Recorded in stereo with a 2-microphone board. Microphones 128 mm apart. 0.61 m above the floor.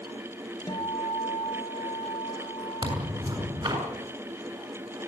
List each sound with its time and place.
0.7 s a guitar: 35° left (ahead or behind), 2.5 m
2.8 s tearing paper: 40° right (ahead or behind), 8 m